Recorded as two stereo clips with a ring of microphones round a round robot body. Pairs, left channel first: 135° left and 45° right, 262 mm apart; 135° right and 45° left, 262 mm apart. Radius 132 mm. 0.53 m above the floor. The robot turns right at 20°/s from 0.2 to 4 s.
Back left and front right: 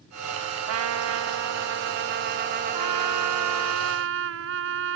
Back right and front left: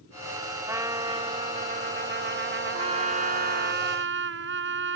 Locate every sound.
0.7 s a trumpet: 35° right; by 3.7 s 30° left
2.7 s a trumpet: 25° right; by 5.0 s straight ahead